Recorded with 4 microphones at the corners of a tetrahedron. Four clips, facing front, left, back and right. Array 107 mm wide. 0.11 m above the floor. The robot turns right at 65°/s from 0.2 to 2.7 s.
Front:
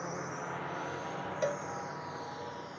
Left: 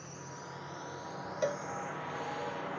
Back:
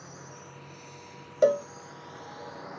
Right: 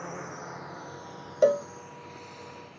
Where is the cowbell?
135° right; by 1.7 s 120° right.